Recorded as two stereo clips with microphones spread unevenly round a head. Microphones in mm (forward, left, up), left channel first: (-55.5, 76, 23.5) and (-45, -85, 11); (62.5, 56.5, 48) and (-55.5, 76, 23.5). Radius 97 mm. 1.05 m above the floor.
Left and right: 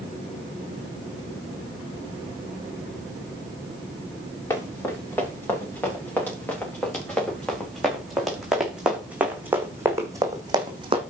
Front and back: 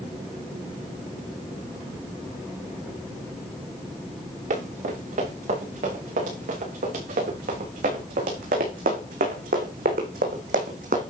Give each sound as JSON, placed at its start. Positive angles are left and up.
{"t": 4.5, "sound": "running footsteps", "azimuth_deg": 165, "distance_m": 6.5}